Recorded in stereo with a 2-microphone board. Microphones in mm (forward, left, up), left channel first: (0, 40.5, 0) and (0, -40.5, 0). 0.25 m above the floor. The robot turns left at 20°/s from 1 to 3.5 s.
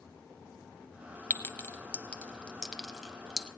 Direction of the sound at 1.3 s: 25° left (ahead or behind).